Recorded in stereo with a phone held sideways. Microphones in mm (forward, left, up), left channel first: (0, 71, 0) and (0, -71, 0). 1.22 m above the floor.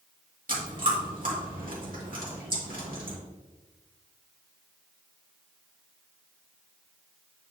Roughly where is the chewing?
Right.